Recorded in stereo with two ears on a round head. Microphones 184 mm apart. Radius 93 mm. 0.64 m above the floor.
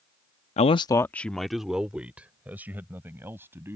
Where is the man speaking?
30° left (ahead or behind); by 3.8 s 10° right (ahead or behind).